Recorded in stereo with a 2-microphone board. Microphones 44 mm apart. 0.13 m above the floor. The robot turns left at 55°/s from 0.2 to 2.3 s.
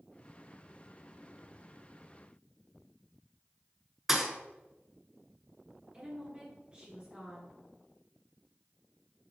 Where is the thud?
10° right (ahead or behind), 0.6 m.